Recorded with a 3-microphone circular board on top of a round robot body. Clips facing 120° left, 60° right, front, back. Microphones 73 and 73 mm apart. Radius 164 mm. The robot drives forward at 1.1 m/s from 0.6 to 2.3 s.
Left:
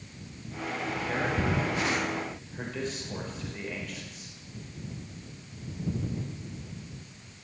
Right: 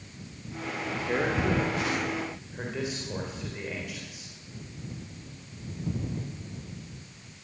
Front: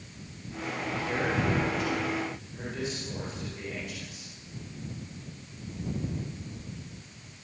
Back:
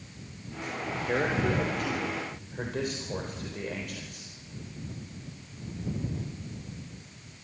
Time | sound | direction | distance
0.9 | a man speaking | 125° right | 3 m